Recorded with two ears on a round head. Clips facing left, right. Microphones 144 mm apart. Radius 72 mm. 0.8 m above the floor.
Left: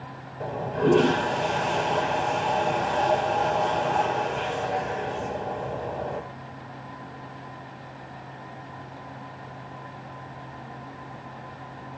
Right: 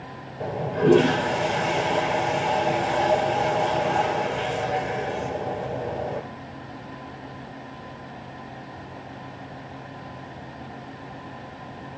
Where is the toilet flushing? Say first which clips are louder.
Right 2 dB; 10° right (ahead or behind), 5.5 m.